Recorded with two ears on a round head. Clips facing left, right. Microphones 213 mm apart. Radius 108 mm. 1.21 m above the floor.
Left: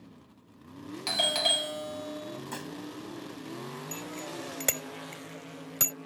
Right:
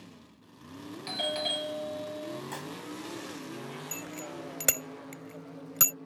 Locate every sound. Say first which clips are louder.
1.1 s a doorbell: left 1 dB; 60° left (ahead or behind)
2.5 s dishes clattering: left 1 dB; 5° left (ahead or behind)
3.9 s a bicycle bell: left 1 dB; 10° right (ahead or behind)